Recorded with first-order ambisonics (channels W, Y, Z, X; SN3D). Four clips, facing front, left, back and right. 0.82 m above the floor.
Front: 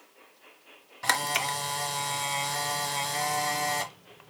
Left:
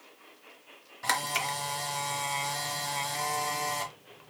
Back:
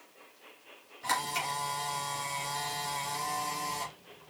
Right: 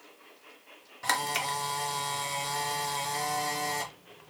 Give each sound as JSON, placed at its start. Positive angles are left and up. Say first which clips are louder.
{"t": 1.0, "sound": "a camera shutter", "louder": "even, front 5 dB", "azimuth_deg": 0, "distance_m": 0.7}